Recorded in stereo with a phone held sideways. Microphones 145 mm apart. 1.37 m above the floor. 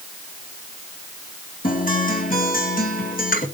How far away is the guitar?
About 2 m.